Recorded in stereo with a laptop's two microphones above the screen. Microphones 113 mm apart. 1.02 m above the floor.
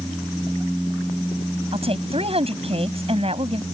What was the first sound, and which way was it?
A woman speaking, 60° right (ahead or behind).